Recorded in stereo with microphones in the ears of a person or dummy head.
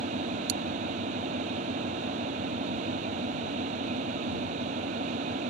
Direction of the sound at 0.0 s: 35° right (ahead or behind).